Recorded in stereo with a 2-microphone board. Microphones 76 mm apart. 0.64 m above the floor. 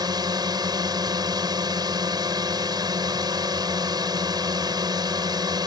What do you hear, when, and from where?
0.0 s a drone: 60° right (ahead or behind)